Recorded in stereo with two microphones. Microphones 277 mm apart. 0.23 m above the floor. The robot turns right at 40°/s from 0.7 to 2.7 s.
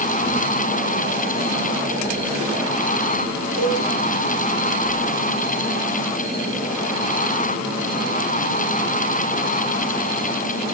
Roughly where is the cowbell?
Right.